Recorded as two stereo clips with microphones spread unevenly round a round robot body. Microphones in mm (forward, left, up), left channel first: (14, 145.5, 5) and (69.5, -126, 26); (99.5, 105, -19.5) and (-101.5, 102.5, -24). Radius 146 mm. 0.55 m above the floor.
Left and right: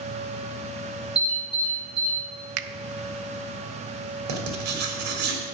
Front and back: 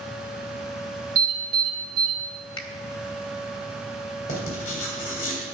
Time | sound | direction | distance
1.1 | an alarm | 165° right | 5 m
2.6 | a finger snap | 70° right | 0.6 m
4.3 | writing | 65° right | 2 m